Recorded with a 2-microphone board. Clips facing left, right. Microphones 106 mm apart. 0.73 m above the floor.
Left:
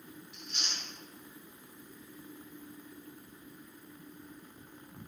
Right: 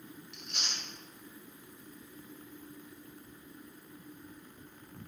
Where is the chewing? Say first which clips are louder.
Even; 90° right, 1.4 m.